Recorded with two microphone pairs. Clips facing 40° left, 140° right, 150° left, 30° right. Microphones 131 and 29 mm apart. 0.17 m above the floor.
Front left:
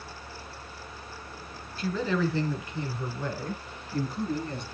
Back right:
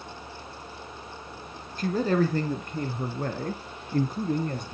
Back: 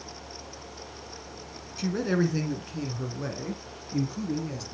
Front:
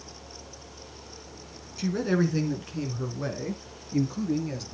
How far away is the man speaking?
About 1.7 m.